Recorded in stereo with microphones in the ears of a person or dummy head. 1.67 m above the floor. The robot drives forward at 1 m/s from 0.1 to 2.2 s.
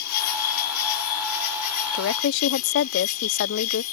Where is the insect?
65° left (ahead or behind); by 3.9 s 50° left (ahead or behind).